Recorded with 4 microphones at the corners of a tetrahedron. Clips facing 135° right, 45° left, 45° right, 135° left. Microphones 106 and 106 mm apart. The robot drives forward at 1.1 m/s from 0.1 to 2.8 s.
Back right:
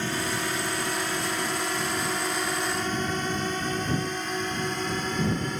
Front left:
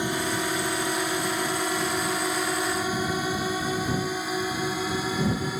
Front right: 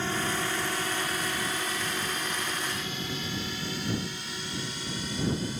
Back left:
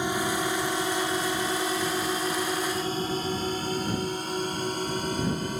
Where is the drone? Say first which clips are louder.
Front left 2 dB, back left 3 dB; 90° left; by 5.6 s 125° left.